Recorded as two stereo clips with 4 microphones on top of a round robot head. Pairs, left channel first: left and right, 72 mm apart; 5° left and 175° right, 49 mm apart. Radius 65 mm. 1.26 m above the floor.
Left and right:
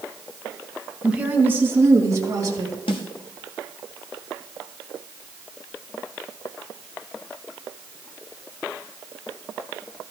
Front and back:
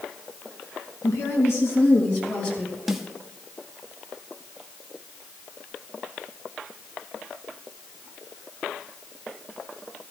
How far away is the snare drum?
About 1.2 m.